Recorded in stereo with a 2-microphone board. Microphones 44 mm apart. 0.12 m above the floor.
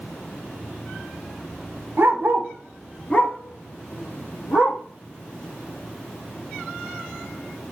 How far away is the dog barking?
About 1.0 m.